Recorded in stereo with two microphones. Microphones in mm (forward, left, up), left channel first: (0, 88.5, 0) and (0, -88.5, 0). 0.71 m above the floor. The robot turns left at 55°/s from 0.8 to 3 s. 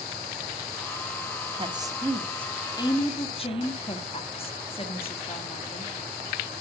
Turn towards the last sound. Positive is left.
turn(degrees=35)  # may be behind; listen again after turning